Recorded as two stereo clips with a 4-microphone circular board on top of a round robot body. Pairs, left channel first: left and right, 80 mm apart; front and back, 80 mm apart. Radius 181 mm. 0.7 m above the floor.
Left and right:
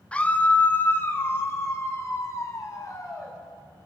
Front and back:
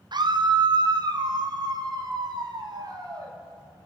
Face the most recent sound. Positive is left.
turn(degrees=140)